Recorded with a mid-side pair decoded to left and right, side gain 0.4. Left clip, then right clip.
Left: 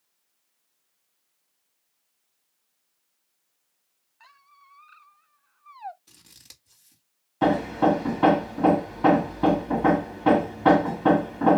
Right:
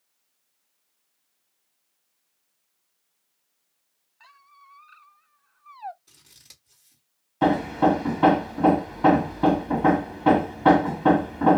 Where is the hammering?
Straight ahead, 1.2 m.